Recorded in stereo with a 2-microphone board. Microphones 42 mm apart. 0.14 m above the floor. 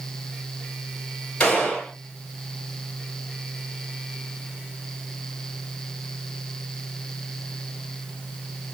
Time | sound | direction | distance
1.4 | a gunshot | 20° left (ahead or behind) | 2.5 m